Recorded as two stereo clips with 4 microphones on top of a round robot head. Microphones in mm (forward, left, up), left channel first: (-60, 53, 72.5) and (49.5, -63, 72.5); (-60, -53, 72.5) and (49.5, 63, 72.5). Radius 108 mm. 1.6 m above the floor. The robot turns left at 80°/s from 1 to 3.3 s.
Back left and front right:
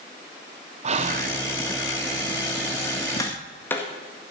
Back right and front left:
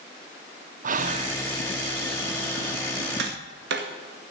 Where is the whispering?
5° left, 1.3 m; by 1.4 s 25° right, 1.3 m.